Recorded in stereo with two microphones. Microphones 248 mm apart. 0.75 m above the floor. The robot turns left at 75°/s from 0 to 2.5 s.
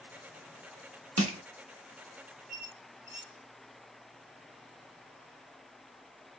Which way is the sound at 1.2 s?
80° right.